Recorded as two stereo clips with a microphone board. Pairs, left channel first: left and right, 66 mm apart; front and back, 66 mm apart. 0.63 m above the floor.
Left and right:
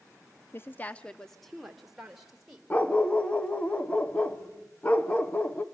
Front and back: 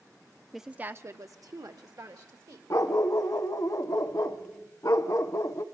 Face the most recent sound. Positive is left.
turn(degrees=25)